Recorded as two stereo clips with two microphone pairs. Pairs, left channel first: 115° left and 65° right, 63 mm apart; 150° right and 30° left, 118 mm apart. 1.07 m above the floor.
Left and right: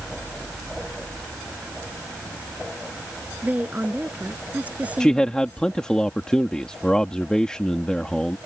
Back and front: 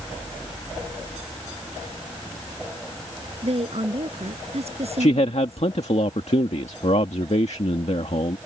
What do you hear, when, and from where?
3.4 s a woman speaking: 5° right; by 5.7 s 5° left
5.0 s a man speaking: 170° right